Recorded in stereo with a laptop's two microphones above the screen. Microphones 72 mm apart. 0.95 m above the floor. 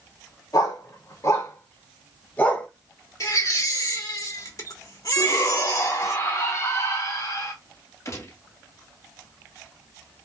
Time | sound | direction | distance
0.5 | a dog barking | 60° left (ahead or behind) | 1.8 m
3.2 | a baby crying | 50° left (ahead or behind) | 1.5 m
5.2 | a shout | 45° left (ahead or behind) | 1.9 m
8.1 | a gunshot | 45° left (ahead or behind) | 1.3 m